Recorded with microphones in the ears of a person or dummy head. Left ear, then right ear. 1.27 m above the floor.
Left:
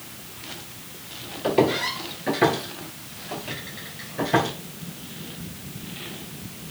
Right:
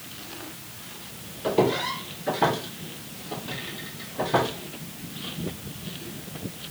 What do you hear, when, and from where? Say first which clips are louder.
1.4 s footsteps: left 2 dB; 20° left (ahead or behind), 1.6 m; by 4.5 s 15° left (ahead or behind), 1.6 m